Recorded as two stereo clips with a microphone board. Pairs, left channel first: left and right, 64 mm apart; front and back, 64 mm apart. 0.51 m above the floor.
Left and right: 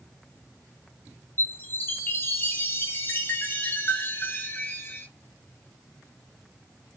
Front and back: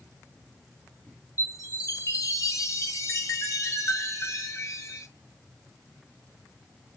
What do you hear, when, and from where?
1.4 s a chime: 35° left, 0.6 m